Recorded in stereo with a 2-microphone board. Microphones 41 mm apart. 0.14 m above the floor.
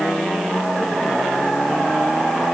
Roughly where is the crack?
No crack in this recording.